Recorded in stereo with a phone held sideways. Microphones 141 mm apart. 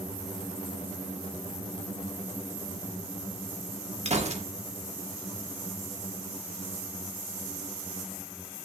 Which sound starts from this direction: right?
A gunshot, at 4.0 s.